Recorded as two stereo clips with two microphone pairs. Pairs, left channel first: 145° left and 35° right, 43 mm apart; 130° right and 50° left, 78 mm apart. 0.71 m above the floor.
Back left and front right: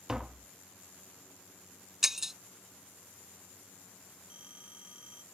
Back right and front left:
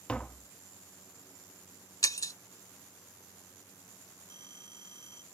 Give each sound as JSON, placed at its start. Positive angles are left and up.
{"t": 0.1, "sound": "tapping", "azimuth_deg": -75}
{"t": 2.0, "sound": "breaking glass", "azimuth_deg": -115}
{"t": 4.3, "sound": "a phone ringing", "azimuth_deg": 30}